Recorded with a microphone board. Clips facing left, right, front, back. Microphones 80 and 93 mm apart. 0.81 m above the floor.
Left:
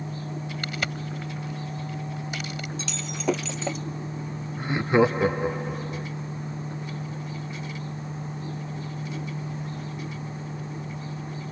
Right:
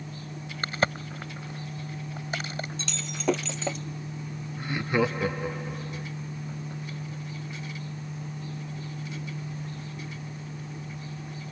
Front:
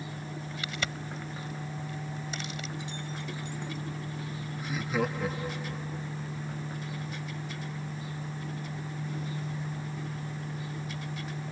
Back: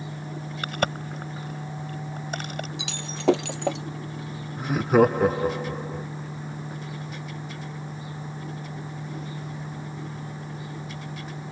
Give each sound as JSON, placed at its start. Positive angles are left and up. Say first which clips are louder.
{"t": 0.6, "sound": "a crack", "louder": "right 7 dB, back 11 dB", "azimuth_deg": -145}
{"t": 2.8, "sound": "breaking glass", "louder": "left 2 dB, back 9 dB", "azimuth_deg": 180}
{"t": 4.6, "sound": "laughter", "louder": "left 6 dB, back 12 dB", "azimuth_deg": 150}